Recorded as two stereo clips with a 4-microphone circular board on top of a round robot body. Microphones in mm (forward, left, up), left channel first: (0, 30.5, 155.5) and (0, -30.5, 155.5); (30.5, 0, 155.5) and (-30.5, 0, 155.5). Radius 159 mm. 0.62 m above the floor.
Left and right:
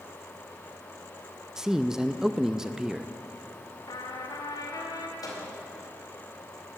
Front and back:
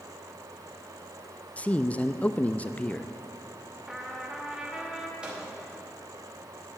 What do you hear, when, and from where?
1.6 s a man speaking: 20° right, 0.7 m
3.9 s a trumpet: 100° left, 1.6 m
5.2 s a microwave: 105° left, 3.5 m